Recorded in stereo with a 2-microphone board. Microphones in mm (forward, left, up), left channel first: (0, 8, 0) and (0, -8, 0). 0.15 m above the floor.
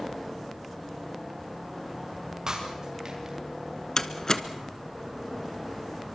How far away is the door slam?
About 1.2 m.